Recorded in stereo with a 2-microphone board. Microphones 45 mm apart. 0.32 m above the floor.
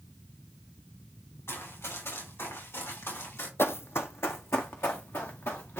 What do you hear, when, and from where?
1.5 s running footsteps: 80° left, 6 m; by 3.5 s 75° left (ahead or behind), 4.5 m
3.6 s running footsteps: 70° left (ahead or behind), 0.7 m; by 5.8 s 75° left (ahead or behind), 2.5 m